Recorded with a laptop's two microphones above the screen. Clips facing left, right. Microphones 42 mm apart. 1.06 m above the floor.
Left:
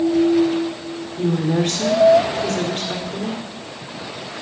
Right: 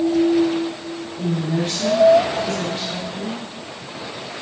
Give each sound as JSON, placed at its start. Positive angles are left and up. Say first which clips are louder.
{"t": 1.2, "sound": "a woman speaking", "louder": "left 4 dB", "side_deg": 65, "distance_m": 4.0}